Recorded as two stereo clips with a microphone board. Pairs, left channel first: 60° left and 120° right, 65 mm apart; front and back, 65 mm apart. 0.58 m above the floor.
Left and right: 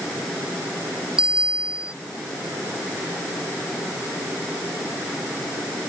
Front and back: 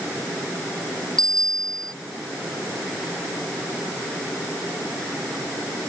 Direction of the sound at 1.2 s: 160° left.